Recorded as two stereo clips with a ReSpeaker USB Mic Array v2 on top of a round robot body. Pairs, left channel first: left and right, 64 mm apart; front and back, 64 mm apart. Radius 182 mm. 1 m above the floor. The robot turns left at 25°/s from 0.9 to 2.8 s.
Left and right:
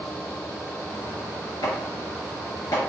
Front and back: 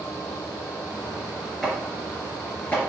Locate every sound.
1.6 s chopping: 90° left, 4 m; by 2.8 s 60° left, 4 m